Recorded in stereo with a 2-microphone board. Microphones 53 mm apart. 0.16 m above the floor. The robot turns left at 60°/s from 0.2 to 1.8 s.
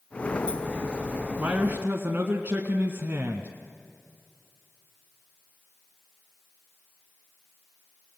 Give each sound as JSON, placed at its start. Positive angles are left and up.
{"t": 1.4, "sound": "a man speaking", "side_deg": -35, "distance_m": 1.4}